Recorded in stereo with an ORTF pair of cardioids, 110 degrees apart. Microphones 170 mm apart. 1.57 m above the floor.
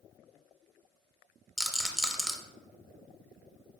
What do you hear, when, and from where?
1.6 s a rattle: 5° right, 0.6 m